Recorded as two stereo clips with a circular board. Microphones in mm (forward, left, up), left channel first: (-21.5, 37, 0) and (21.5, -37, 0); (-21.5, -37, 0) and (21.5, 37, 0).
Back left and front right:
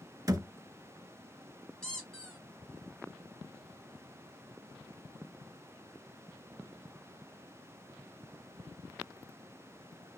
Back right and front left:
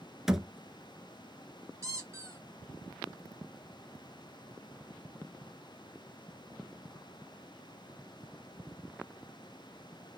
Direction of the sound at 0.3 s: 25° right.